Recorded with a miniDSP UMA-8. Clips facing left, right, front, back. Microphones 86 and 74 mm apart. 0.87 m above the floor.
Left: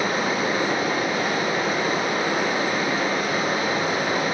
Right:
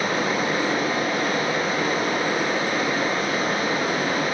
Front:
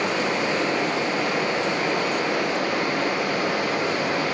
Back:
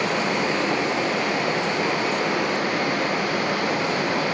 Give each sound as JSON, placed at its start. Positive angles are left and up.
{"t": 0.0, "sound": "running water", "azimuth_deg": 165, "distance_m": 1.9}